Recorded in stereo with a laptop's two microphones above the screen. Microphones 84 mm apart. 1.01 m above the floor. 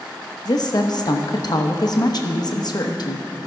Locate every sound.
0.5 s a woman speaking: 55° left (ahead or behind), 1.0 m